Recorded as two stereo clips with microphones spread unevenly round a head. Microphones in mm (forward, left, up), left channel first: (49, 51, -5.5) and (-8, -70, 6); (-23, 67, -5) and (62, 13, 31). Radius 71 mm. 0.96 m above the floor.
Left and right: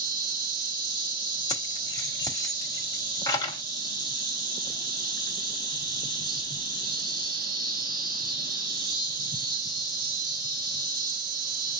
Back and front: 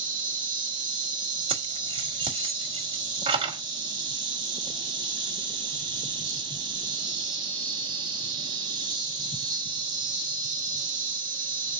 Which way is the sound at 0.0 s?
70° right.